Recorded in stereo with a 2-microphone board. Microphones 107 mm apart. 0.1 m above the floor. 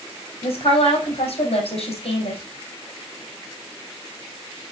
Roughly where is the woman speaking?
Left.